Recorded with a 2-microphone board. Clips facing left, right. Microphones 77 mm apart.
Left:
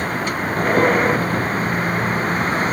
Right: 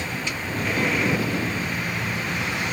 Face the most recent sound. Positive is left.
turn(degrees=40)  # may be behind; listen again after turning